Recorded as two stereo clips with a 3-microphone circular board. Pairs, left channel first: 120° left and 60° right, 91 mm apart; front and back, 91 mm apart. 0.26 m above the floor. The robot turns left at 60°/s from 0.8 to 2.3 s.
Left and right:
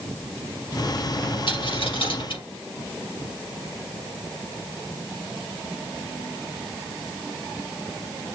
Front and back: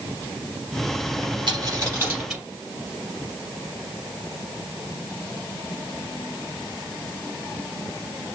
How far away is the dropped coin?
About 3.5 m.